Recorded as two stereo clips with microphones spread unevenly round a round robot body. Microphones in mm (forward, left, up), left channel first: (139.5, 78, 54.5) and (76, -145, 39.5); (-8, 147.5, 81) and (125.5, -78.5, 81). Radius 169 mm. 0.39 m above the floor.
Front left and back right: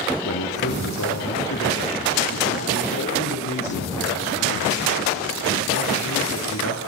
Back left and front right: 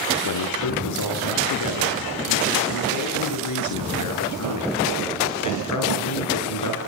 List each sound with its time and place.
0.2 s a man speaking: 120° left, 7 m